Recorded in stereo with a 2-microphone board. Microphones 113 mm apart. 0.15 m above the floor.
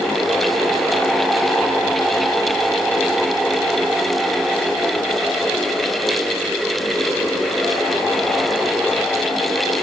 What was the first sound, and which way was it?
Only background noise.